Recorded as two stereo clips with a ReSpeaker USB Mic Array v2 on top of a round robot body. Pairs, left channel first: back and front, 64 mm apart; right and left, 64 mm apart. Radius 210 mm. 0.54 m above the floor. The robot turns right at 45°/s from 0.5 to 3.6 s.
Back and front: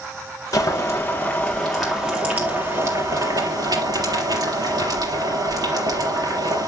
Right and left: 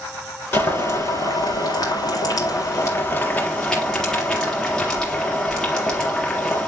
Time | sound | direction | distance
0.5 | boiling | 145° right | 4 m